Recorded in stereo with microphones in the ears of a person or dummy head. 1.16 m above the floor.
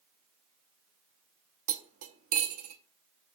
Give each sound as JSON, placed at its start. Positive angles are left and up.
{"t": 1.7, "sound": "cutlery clinking", "side_deg": -45, "distance_m": 0.7}